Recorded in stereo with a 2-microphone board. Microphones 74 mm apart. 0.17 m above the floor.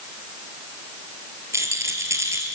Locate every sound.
1.5 s a rattle: 40° right (ahead or behind), 3.5 m